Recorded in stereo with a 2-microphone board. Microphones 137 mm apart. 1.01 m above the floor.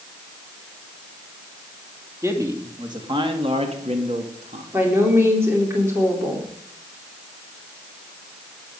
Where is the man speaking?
20° right (ahead or behind), 2.5 m; by 4.6 s 65° right (ahead or behind), 2 m.